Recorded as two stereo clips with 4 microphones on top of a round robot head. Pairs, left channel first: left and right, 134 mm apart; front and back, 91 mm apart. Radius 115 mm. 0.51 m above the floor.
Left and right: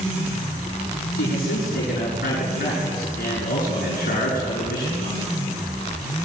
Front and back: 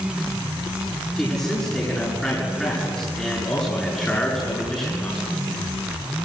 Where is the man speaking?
80° left, 7.5 m.